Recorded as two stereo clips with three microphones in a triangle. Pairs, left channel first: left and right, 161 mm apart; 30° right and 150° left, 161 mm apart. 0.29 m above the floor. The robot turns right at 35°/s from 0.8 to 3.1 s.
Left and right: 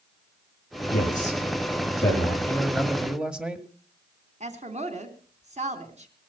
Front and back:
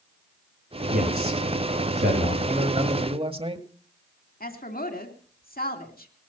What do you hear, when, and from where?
0.9 s a man speaking: 120° left, 7 m; by 2.4 s 175° left, 7 m
2.5 s a man speaking: 165° left, 1.5 m; by 3.7 s 175° right, 1.5 m
4.4 s a woman speaking: 45° right, 2.5 m